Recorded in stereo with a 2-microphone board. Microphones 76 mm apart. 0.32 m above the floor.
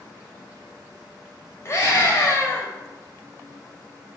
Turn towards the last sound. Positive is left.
turn(degrees=40)  # may be behind; listen again after turning